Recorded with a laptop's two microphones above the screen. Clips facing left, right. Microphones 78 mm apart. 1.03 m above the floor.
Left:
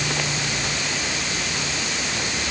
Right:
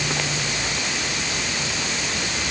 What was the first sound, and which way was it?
Only background noise.